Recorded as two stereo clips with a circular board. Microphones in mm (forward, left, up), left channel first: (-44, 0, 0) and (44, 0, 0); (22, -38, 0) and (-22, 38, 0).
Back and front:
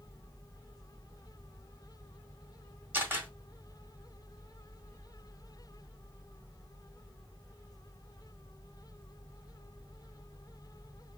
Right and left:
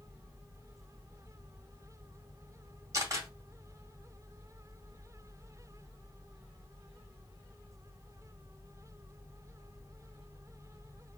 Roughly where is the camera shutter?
Left.